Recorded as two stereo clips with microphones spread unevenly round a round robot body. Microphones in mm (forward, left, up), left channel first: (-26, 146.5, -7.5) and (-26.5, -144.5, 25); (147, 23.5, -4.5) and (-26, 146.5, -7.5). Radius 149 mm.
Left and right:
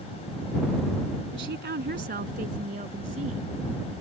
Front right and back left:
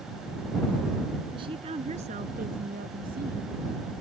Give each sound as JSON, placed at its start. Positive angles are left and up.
{"t": 1.3, "sound": "a woman speaking", "azimuth_deg": -140}